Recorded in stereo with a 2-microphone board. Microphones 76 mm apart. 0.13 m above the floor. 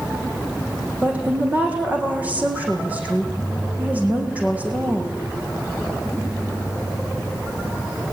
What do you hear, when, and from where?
1.0 s a woman speaking: 20° right (ahead or behind), 6 m